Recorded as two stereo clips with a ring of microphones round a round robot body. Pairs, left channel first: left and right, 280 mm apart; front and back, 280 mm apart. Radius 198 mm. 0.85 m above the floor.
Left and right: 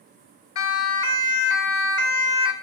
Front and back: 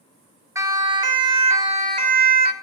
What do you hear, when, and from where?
0.6 s a siren: 100° left, 3 m; by 2.5 s 125° left, 2.5 m